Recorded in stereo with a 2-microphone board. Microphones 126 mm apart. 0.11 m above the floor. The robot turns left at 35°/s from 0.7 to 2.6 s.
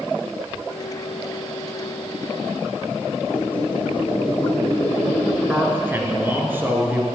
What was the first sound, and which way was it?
A squeak, 45° left (ahead or behind).